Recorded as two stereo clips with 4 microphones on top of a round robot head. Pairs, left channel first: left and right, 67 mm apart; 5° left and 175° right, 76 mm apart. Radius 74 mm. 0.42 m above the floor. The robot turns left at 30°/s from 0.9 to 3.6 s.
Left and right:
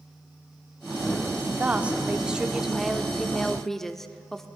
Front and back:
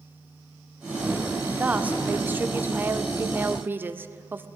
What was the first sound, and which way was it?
A woman speaking, 125° right.